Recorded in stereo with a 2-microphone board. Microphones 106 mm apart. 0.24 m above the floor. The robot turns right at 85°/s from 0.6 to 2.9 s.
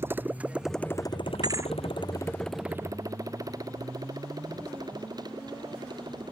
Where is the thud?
45° right (ahead or behind); by 1.7 s 20° right (ahead or behind).